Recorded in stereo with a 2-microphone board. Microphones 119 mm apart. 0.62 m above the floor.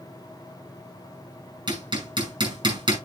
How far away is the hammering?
About 6 m.